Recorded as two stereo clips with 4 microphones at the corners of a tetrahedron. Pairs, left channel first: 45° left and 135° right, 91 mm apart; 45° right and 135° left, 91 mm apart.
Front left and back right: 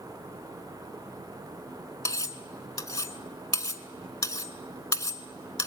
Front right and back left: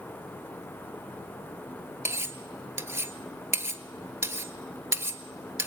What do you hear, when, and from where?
2.0 s cutlery clinking: 85° left, 0.9 m